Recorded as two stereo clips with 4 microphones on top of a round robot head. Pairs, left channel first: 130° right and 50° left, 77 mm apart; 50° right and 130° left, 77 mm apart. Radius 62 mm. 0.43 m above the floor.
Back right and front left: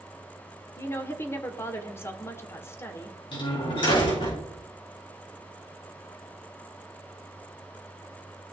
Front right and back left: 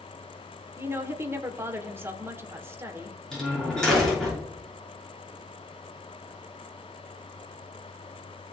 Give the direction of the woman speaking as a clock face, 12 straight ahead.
6 o'clock.